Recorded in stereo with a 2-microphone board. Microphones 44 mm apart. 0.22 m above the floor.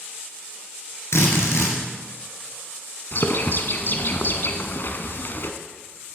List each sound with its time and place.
1.1 s a drill: 70° left (ahead or behind), 2.5 m
3.1 s a bird: 55° left (ahead or behind), 0.9 m